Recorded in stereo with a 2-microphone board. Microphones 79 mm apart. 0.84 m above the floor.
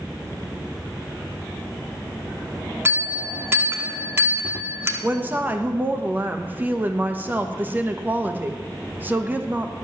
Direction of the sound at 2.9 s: 30° right (ahead or behind).